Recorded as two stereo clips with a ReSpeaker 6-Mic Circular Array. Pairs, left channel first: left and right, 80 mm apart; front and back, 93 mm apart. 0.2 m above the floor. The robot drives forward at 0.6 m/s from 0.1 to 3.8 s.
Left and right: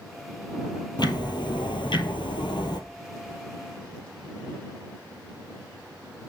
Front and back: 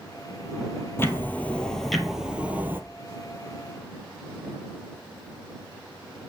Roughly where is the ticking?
Ahead left.